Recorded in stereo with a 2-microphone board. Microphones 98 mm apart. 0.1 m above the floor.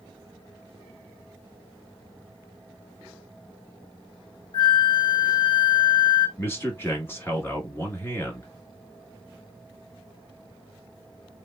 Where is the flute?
50° left (ahead or behind), 0.7 m.